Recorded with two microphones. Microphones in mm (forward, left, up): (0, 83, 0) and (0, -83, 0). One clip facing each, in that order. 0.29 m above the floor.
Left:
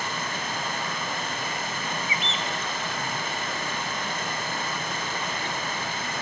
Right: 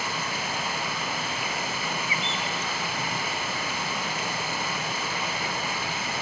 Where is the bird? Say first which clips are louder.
Even; 20° left (ahead or behind), 0.6 m.